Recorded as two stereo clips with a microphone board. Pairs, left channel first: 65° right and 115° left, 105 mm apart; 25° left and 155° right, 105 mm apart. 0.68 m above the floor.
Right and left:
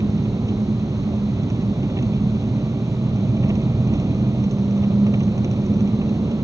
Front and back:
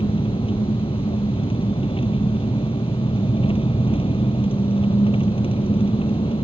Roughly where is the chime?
No chime in this recording.